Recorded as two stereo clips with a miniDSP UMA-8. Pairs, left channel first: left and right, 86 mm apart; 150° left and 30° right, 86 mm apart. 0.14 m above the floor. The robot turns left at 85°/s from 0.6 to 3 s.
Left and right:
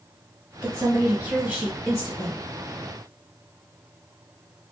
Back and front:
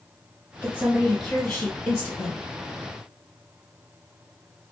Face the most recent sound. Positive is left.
turn(degrees=100)